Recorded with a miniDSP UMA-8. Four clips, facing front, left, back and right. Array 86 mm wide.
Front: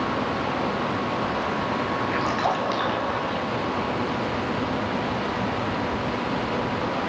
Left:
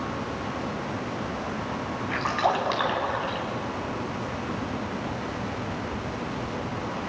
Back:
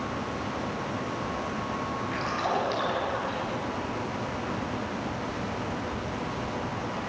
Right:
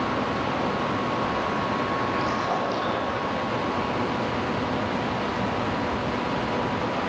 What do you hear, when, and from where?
2.1 s a splash: 65° left, 5.5 m